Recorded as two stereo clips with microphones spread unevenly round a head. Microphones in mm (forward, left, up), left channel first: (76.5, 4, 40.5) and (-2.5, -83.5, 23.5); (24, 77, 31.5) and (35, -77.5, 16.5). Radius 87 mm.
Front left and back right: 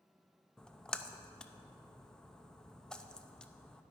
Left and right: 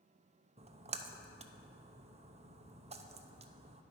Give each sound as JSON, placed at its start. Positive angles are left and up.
{"t": 0.6, "sound": "a splash", "azimuth_deg": -40, "distance_m": 0.6}